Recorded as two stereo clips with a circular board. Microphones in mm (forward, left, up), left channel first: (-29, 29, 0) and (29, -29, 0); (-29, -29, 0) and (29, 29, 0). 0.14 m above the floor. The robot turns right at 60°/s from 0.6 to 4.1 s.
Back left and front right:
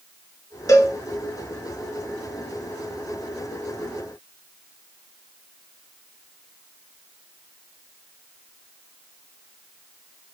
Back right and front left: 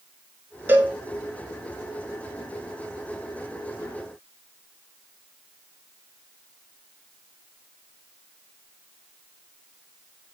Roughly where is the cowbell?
Left.